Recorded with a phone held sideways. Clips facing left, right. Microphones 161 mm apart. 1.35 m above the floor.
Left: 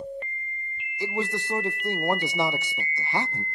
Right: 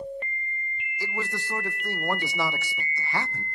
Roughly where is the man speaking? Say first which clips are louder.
Left 5 dB; left.